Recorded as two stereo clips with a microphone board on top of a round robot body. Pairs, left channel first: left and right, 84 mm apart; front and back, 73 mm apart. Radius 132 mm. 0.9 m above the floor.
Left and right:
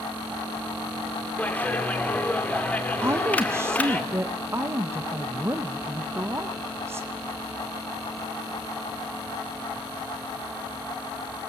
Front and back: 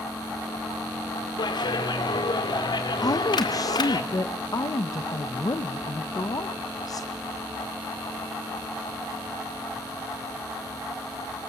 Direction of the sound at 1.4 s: 15° left.